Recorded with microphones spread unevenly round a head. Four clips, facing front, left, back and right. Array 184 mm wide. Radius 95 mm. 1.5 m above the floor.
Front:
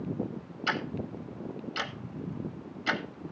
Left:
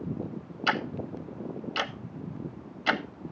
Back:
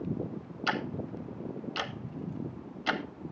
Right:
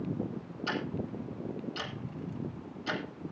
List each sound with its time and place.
0.7 s ticking: 80° left, 1.0 m